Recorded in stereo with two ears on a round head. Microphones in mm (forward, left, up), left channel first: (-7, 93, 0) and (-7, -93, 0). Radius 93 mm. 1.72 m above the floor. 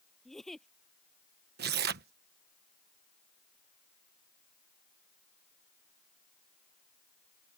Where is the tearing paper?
55° right (ahead or behind).